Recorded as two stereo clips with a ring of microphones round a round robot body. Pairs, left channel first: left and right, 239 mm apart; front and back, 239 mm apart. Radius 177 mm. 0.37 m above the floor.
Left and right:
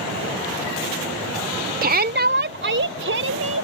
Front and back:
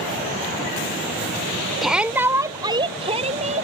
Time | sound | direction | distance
1.8 | a shout | 90° right | ?